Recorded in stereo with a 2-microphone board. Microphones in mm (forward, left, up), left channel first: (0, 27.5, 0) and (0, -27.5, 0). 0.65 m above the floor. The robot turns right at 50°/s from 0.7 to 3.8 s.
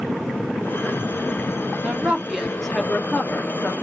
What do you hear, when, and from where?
1.8 s a woman speaking: 35° right, 0.7 m; by 3.8 s 65° left, 0.7 m